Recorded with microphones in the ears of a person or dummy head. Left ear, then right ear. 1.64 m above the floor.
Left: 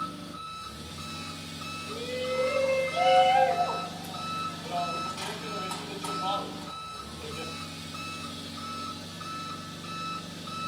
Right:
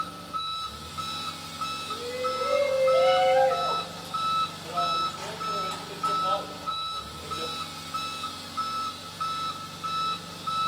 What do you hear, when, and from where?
0.0 s an engine running: 20° right (ahead or behind), 1.5 m
1.9 s a shout: 40° left (ahead or behind), 2 m